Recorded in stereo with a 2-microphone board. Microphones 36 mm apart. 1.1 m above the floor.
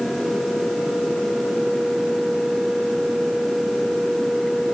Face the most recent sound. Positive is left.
No sound to turn to.